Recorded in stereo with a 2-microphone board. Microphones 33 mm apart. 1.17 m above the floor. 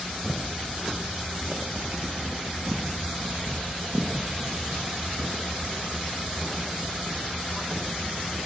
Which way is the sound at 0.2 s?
20° right (ahead or behind).